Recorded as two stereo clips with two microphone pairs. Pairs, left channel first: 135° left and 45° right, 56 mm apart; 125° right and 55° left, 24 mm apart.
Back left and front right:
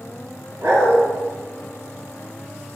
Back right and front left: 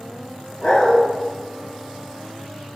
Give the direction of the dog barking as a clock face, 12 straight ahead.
2 o'clock.